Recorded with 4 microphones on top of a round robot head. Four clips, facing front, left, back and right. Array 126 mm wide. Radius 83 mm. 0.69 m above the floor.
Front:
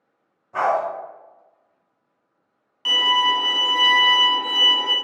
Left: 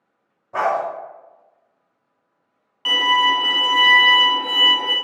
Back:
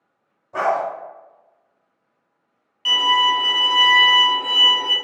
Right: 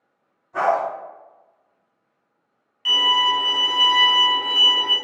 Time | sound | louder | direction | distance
0.5 | a dog barking | even, even | 110° left | 1.0 m
2.9 | a violin | left 3 dB, back 2 dB | 75° left | 0.6 m